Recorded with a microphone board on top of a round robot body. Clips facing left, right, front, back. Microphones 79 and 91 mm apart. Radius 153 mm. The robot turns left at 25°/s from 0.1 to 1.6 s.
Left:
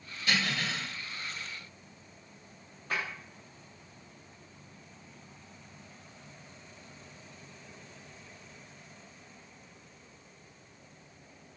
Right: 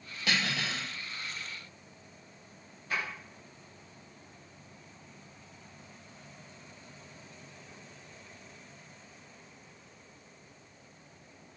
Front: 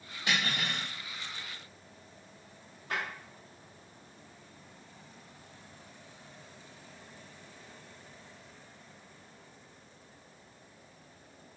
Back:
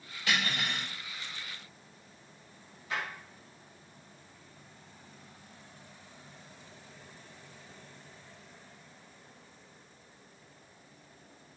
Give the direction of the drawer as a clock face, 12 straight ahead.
10 o'clock.